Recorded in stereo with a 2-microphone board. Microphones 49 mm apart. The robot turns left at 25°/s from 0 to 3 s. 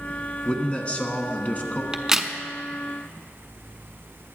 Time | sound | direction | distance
0.5 | a man speaking | 140° left | 1.2 m
1.9 | a crack | 15° right (ahead or behind) | 0.7 m